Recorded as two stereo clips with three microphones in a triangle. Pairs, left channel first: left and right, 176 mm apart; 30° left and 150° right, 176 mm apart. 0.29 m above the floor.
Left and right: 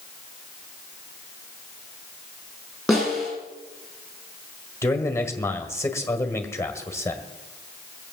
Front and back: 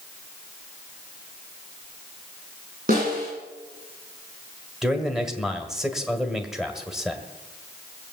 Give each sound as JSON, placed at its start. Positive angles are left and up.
{"t": 2.9, "sound": "a snare drum", "azimuth_deg": 180, "distance_m": 9.5}
{"t": 4.8, "sound": "a man speaking", "azimuth_deg": 125, "distance_m": 1.6}